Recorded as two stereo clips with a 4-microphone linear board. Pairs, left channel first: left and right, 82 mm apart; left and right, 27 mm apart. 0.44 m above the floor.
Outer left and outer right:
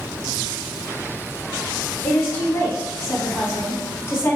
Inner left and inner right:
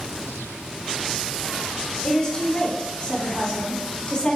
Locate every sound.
2.0 s a woman speaking: 30° left (ahead or behind), 0.8 m